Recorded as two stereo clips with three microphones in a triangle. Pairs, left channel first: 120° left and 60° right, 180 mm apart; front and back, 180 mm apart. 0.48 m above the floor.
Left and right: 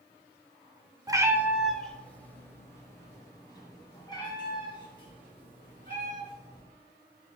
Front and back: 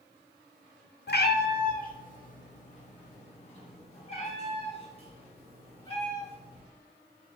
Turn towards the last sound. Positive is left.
turn(degrees=60)